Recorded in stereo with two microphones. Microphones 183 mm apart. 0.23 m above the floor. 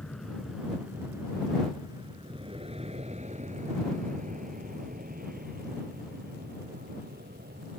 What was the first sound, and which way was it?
An aircraft, 5° left (ahead or behind).